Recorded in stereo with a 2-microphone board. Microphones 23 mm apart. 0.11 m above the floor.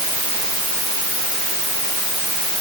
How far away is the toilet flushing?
I don't hear a toilet flushing.